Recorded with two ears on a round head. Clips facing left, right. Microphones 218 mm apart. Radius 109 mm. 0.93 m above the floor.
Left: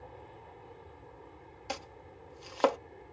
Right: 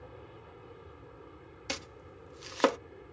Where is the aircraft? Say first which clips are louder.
Right 1 dB; 15° right (ahead or behind).